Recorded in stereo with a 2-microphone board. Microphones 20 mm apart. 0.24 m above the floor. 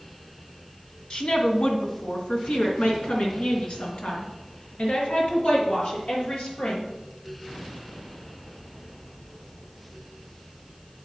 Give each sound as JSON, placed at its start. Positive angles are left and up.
{"t": 1.1, "sound": "a woman speaking", "side_deg": 50, "distance_m": 2.0}